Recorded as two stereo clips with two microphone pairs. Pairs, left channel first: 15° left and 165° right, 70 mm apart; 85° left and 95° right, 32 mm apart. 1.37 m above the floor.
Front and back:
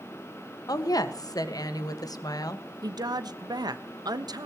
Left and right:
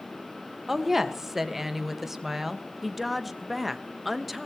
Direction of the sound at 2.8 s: 175° left.